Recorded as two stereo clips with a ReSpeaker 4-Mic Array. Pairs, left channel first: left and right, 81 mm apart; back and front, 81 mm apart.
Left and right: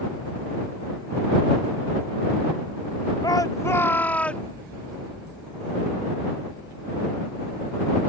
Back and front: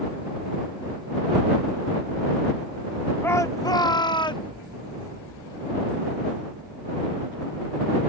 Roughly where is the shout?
Behind left.